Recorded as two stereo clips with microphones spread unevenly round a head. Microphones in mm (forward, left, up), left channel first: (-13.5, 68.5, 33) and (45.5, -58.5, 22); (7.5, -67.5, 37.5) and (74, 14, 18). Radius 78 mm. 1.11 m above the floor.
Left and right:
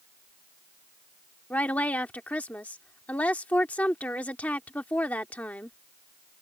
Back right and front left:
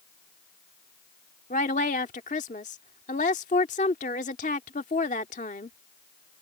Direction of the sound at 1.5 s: 165° right.